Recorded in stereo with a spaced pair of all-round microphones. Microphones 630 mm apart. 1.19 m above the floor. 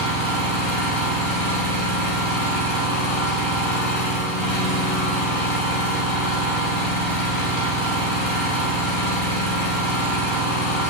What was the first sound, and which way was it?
An engine running, 60° left (ahead or behind).